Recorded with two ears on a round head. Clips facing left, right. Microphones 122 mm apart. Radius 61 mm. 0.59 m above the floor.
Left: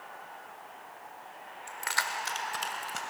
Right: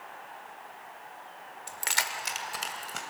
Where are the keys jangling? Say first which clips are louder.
Left 1 dB; 40° right (ahead or behind), 1.3 m; by 3.0 s centre (ahead or behind), 2.5 m.